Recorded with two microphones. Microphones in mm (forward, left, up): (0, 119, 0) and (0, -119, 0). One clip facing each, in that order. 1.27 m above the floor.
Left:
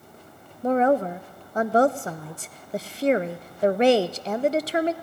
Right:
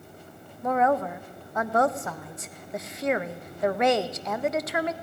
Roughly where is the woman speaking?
Left.